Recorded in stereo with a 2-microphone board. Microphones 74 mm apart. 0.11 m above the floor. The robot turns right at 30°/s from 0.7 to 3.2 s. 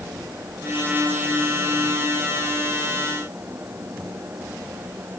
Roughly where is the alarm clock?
I don't hear an alarm clock.